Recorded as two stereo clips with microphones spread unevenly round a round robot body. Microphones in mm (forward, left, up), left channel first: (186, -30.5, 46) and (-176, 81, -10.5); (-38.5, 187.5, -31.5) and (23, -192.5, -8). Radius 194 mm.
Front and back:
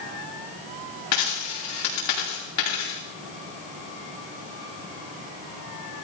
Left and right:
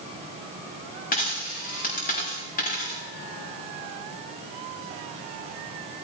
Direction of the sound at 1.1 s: 30° left.